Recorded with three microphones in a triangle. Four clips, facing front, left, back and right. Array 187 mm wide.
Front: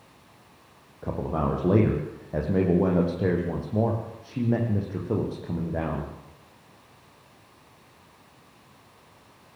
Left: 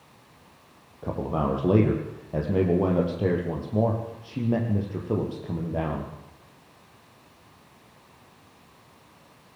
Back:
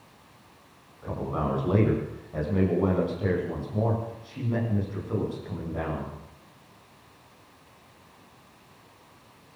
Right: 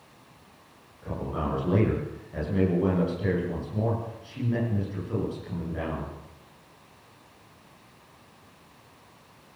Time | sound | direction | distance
1.0 | a man speaking | 45° left | 7.5 m